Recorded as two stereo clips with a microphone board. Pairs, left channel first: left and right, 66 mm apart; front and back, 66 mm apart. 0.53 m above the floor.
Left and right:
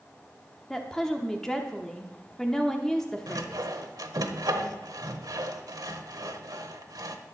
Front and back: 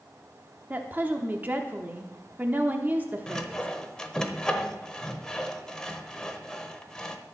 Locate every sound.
0.7 s a woman speaking: 160° left, 0.8 m
3.3 s sawing: 80° right, 0.9 m